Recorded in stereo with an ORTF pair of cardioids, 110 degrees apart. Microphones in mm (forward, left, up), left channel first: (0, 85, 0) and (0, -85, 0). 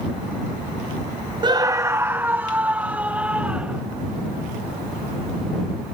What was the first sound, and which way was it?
A scream, 25° right.